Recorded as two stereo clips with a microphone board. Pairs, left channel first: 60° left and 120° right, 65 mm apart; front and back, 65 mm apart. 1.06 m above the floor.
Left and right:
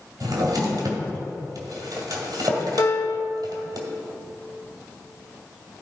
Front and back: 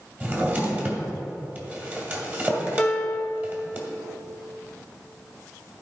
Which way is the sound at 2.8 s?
70° left.